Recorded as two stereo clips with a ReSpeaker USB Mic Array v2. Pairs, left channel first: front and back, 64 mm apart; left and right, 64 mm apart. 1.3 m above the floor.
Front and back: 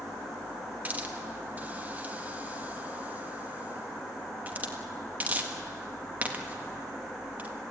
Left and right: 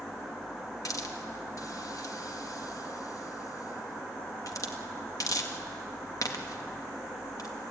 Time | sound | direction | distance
0.8 | a hiss | 115° left | 1.7 m